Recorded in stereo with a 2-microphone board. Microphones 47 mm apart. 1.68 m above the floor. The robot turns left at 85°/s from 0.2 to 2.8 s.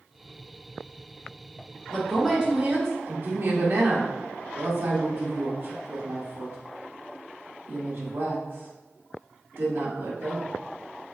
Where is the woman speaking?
20° left (ahead or behind), 1.0 m; by 10.5 s 55° right (ahead or behind), 1.0 m.